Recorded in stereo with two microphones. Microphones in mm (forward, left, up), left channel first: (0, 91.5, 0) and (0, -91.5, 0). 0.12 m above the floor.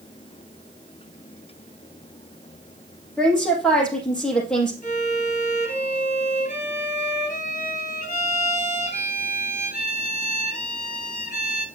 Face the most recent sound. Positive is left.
turn(degrees=40)  # may be behind; listen again after turning